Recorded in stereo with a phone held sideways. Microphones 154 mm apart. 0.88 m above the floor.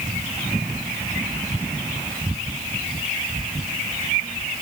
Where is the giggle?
I don't hear a giggle.